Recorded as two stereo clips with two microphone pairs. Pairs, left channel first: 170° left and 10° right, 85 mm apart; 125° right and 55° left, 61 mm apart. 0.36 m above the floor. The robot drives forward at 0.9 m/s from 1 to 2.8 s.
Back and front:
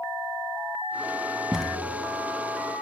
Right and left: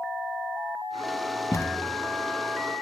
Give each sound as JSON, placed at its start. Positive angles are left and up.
{"t": 1.5, "sound": "a thud", "azimuth_deg": -90, "distance_m": 0.6}